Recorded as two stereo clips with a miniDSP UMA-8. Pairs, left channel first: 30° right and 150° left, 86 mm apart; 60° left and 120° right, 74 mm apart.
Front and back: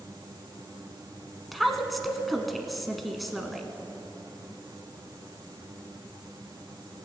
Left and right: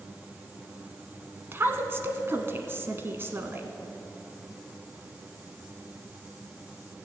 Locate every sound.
1.5 s a woman speaking: 120° right, 1.1 m